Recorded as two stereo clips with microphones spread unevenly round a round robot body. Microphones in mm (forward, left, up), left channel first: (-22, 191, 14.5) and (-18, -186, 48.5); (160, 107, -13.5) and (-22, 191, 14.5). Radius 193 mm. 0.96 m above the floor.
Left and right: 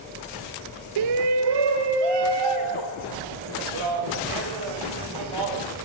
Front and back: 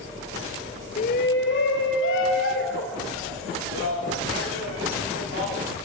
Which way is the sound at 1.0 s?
75° right.